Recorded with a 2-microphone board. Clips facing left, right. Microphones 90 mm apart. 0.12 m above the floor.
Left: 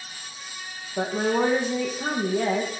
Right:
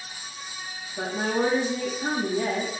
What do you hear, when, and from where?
1.0 s a woman speaking: 60° left (ahead or behind), 6 m